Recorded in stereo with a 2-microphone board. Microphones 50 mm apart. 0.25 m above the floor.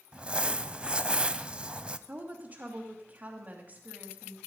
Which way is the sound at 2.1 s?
30° right (ahead or behind).